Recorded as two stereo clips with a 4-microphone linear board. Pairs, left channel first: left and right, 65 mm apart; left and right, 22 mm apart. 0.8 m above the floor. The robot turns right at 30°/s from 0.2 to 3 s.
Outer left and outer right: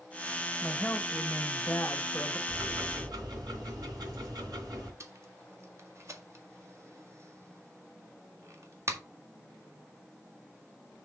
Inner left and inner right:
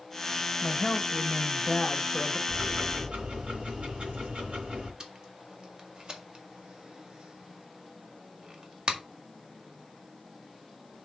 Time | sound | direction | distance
0.6 | a woman speaking | 30° left | 1.1 m
2.5 | ticking | 85° right | 3.5 m
5.0 | tape being pulled | 45° right (ahead or behind) | 1.5 m